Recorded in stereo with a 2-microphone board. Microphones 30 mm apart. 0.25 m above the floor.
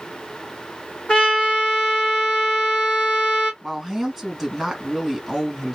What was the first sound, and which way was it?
A trumpet, 35° left (ahead or behind).